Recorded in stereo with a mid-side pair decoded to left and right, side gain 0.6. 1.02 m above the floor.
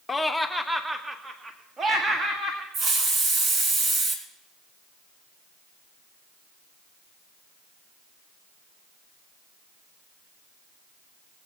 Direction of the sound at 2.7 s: 50° right.